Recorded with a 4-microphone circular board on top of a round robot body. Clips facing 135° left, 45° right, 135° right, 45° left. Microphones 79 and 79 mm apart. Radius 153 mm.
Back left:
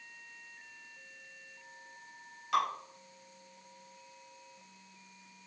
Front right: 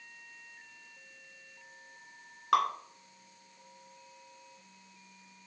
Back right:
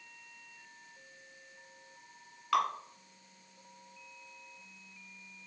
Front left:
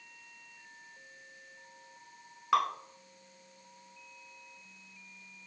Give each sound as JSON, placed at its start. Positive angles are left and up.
{"t": 2.5, "sound": "dripping", "azimuth_deg": -20, "distance_m": 1.6}